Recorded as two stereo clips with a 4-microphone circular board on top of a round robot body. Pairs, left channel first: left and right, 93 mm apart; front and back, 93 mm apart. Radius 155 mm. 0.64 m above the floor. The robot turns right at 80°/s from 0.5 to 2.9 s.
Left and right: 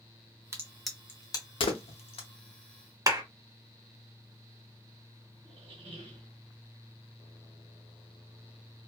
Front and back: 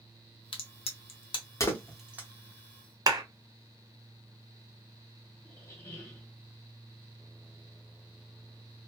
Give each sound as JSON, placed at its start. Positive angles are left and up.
{"t": 0.5, "sound": "a crack", "azimuth_deg": -30, "distance_m": 0.6}
{"t": 3.1, "sound": "a clap", "azimuth_deg": -140, "distance_m": 1.5}
{"t": 5.4, "sound": "a squeak", "azimuth_deg": -65, "distance_m": 1.1}